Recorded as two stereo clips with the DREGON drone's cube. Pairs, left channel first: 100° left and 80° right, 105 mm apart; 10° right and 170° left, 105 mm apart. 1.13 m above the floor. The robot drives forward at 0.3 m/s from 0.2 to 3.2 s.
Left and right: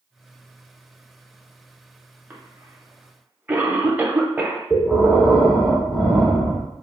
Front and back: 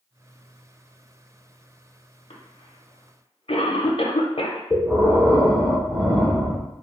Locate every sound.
2.3 s a cough: 5° right, 0.7 m
4.7 s breathing: 165° right, 1.1 m